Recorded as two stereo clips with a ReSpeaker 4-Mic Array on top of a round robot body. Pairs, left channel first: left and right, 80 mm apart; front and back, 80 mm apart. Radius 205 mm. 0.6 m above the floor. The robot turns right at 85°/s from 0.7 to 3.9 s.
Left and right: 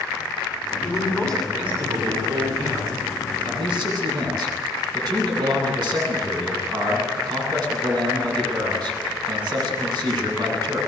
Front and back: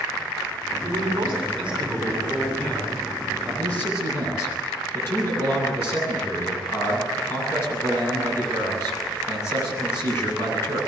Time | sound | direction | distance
0.8 | a man speaking | 130° left | 9 m
3.5 | a man speaking | 95° right | 10 m